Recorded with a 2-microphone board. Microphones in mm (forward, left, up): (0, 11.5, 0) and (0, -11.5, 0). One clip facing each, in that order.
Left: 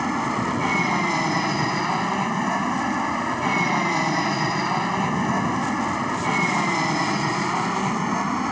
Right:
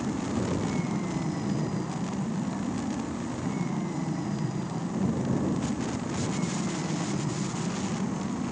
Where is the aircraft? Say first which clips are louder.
Left 7 dB; 60° left (ahead or behind); by 8.5 s 65° left (ahead or behind).